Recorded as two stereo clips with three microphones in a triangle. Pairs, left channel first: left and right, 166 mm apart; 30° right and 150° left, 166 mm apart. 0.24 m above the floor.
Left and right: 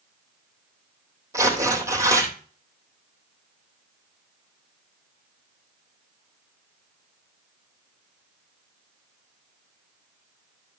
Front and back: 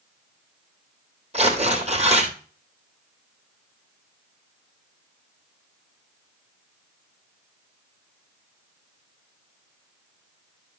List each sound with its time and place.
1.3 s tearing paper: 160° right, 3 m